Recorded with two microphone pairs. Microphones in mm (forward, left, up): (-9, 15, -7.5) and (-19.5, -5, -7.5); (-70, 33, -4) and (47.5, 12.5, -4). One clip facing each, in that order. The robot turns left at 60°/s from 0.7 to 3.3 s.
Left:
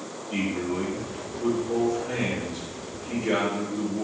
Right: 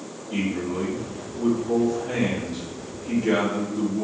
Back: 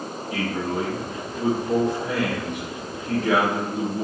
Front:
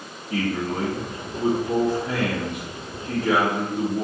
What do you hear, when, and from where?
0.3 s a man speaking: 20° right, 1.2 m; by 4.0 s 175° right, 1.2 m